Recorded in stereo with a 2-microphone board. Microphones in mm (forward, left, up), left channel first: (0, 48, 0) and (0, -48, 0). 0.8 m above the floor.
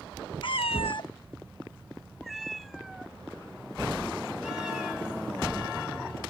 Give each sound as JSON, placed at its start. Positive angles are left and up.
{"t": 0.4, "sound": "a cat meowing", "side_deg": 55}